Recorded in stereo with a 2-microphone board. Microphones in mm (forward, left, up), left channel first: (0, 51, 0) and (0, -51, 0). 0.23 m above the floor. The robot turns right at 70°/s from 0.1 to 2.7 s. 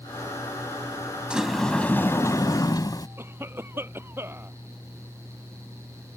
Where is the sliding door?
15° right; by 3.1 s 80° left.